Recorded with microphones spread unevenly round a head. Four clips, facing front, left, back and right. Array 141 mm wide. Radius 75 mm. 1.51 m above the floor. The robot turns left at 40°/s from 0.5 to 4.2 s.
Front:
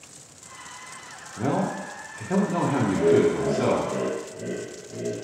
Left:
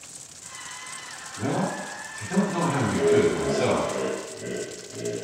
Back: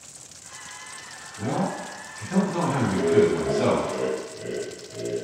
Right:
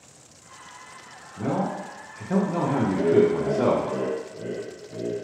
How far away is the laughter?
About 0.8 m.